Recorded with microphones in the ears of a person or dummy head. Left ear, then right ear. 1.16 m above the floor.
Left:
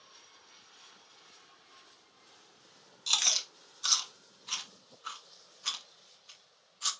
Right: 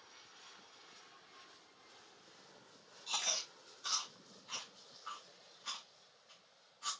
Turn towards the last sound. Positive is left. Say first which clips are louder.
# left 9 dB
turn(degrees=50)  # may be behind; listen again after turning